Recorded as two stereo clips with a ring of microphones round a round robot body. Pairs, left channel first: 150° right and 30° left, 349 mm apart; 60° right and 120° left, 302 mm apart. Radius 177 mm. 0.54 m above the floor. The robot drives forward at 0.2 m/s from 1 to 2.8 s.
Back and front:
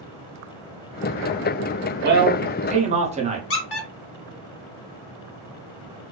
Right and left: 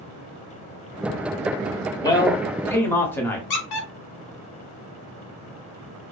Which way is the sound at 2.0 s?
5° left.